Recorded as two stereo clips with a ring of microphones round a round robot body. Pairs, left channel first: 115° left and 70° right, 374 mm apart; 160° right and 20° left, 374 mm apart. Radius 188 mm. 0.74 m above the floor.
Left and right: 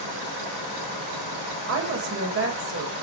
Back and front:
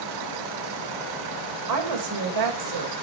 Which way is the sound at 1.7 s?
15° right.